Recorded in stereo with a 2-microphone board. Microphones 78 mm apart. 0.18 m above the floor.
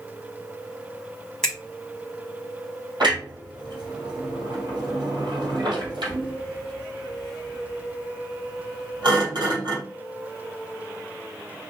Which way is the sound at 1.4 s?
10° left (ahead or behind).